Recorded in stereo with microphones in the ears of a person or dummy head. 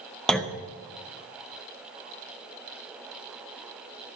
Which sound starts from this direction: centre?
A clunk, at 0.3 s.